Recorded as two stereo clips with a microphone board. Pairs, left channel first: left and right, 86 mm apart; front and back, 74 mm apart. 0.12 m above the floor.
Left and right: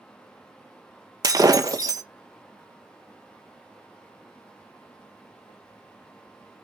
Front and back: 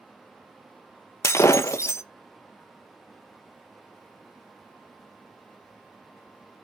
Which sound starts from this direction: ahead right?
Breaking glass, at 1.2 s.